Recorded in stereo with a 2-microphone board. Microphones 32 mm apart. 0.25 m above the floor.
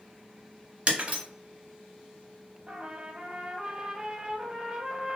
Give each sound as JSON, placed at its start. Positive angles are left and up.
{"t": 0.9, "sound": "breaking glass", "side_deg": -40, "distance_m": 0.9}
{"t": 2.7, "sound": "a trumpet", "side_deg": -35, "distance_m": 0.5}